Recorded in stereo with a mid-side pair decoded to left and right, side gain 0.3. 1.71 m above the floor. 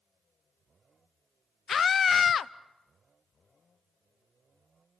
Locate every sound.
1.7 s a scream: 65° left, 0.7 m